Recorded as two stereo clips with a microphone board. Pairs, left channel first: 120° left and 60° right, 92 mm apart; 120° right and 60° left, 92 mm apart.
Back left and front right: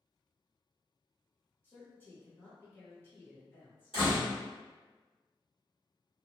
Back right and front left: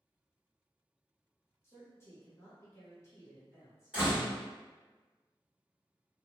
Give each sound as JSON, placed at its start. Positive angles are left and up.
{"t": 1.6, "sound": "a man speaking", "azimuth_deg": 180, "distance_m": 1.6}
{"t": 3.9, "sound": "a door slam", "azimuth_deg": 135, "distance_m": 1.6}